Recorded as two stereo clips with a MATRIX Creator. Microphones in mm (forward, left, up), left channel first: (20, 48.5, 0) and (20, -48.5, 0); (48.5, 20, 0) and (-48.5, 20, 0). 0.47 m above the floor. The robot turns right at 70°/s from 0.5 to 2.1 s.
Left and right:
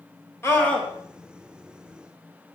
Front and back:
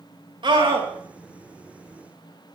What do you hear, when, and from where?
0.4 s a scream: 155° left, 2.5 m; by 0.9 s straight behind, 2.5 m